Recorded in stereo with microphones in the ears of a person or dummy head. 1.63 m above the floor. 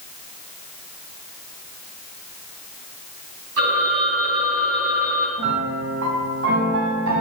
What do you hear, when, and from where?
3.6 s a phone ringing: 80° right, 7.5 m
5.4 s a piano: 60° right (ahead or behind), 3 m